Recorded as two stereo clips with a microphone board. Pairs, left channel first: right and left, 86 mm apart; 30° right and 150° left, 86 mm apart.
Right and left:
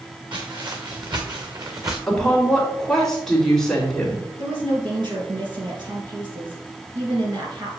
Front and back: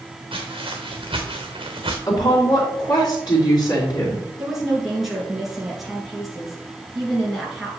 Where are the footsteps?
125° left, 2 m; by 2.0 s 145° left, 1.2 m.